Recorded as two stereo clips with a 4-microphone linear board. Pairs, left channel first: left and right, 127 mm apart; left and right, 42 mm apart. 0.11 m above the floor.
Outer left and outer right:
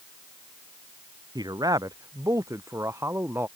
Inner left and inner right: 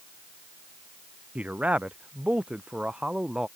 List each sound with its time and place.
1.4 s a man speaking: 30° right (ahead or behind); by 3.5 s 15° right (ahead or behind)